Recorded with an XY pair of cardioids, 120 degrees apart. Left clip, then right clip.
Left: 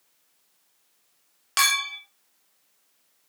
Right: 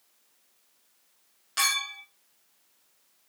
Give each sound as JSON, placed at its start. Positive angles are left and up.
{"t": 1.6, "sound": "a clink", "azimuth_deg": 65, "distance_m": 0.7}